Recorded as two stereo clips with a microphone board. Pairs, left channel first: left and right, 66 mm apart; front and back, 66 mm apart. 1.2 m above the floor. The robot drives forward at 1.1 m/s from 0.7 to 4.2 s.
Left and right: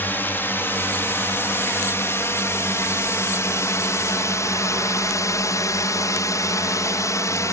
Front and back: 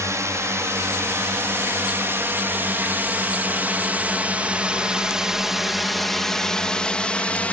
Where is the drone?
145° left; by 7.5 s 60° left.